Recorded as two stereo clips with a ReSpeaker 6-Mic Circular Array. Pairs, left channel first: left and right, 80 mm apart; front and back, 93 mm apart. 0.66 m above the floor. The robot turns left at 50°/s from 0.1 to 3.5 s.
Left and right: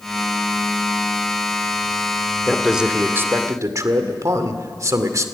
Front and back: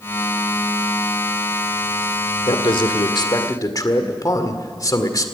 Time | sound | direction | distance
2.5 | a man speaking | 5° left | 1.8 m